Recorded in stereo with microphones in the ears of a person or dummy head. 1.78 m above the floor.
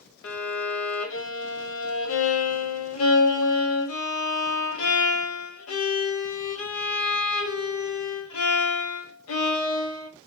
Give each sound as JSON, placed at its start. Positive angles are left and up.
{"t": 0.2, "sound": "a violin", "side_deg": 70, "distance_m": 1.4}